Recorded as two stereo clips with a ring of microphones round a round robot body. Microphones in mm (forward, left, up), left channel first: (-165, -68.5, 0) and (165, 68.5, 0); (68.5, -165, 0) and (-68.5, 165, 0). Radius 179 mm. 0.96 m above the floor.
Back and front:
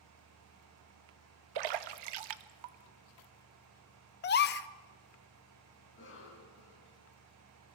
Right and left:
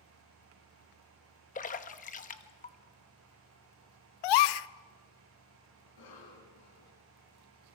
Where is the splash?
Straight ahead, 0.9 m.